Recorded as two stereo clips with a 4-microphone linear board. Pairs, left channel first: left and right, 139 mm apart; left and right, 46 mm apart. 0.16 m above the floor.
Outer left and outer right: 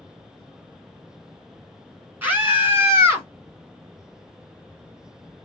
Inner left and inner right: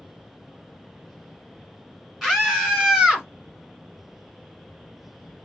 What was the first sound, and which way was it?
A scream, 15° right (ahead or behind).